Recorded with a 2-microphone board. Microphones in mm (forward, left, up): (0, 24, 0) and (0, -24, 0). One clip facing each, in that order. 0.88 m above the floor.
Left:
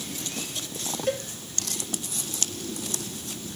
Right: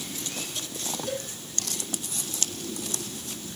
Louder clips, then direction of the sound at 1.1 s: Left 6 dB; 50° left (ahead or behind).